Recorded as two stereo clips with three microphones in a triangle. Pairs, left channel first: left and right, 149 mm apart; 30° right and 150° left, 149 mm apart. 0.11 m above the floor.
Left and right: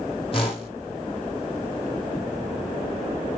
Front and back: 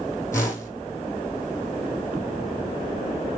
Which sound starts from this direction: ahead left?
A whoosh, at 0.3 s.